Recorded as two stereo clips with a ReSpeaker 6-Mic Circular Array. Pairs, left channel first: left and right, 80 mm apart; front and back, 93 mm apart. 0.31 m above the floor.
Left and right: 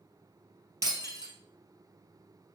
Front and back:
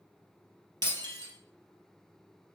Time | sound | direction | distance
0.8 | breaking glass | 135° right | 2.5 m